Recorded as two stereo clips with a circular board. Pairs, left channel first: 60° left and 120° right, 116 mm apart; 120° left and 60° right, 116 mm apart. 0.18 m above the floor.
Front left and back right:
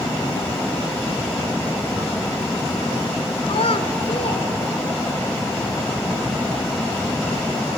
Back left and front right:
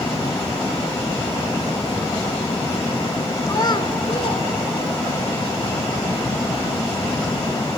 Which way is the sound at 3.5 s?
65° left.